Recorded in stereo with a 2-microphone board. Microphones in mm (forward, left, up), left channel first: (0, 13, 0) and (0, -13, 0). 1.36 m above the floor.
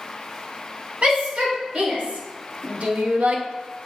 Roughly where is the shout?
Right.